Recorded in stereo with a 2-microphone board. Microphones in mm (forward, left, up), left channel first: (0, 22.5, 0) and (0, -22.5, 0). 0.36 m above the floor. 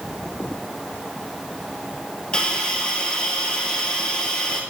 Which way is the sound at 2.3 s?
20° left (ahead or behind).